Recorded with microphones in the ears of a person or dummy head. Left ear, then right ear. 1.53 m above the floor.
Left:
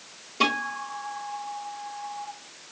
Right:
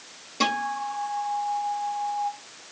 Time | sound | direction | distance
0.4 | a guitar | 15° right (ahead or behind) | 4 m